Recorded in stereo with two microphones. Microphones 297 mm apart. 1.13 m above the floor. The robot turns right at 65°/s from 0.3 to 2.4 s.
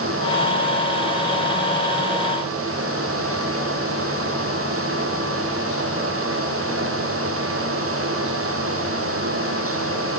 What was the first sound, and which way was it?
Only background noise.